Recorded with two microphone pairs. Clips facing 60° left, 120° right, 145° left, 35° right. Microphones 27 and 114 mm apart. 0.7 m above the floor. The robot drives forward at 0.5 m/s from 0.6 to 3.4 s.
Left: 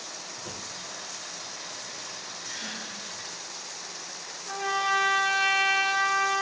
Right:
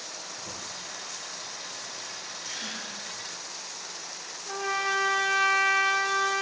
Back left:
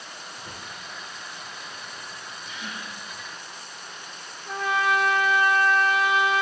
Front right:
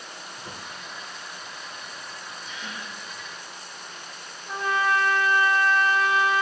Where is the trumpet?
145° left, 2 m.